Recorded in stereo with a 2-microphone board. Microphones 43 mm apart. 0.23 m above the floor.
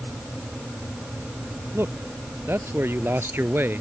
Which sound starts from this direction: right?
A man speaking, at 1.7 s.